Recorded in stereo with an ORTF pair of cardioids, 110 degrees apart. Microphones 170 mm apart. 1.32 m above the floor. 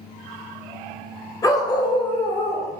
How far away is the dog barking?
About 2.5 m.